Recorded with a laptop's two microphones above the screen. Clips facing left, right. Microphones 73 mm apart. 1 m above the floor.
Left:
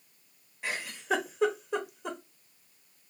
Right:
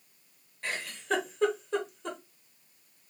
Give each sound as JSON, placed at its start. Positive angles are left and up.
{"t": 0.6, "sound": "a giggle", "side_deg": 10, "distance_m": 0.8}